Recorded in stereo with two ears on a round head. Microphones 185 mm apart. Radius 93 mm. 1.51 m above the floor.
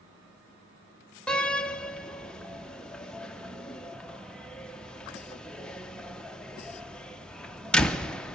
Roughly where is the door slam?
Centre.